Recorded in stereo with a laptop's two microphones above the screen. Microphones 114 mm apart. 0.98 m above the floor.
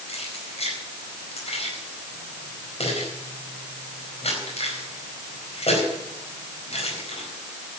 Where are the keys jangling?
65° left (ahead or behind), 4.5 m.